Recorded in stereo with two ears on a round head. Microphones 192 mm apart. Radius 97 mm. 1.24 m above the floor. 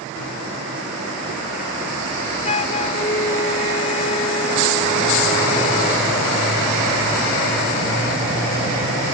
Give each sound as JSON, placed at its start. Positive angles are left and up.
{"t": 2.4, "sound": "a flute", "side_deg": 30}